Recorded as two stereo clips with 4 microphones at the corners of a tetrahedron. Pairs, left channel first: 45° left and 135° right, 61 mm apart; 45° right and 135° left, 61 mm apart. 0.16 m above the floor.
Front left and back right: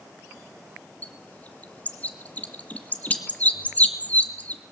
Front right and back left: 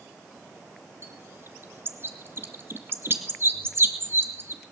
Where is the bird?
100° left, 2 m.